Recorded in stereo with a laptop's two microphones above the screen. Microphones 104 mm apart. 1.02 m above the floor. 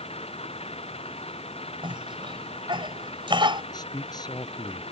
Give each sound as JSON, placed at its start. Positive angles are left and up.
{"t": 0.0, "sound": "an engine running", "side_deg": 70}
{"t": 1.8, "sound": "a cough", "side_deg": -50}
{"t": 3.7, "sound": "a man speaking", "side_deg": 40}